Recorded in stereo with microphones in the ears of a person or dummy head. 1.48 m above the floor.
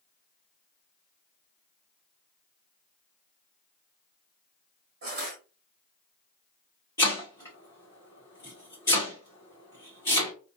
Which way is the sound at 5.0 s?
30° right (ahead or behind).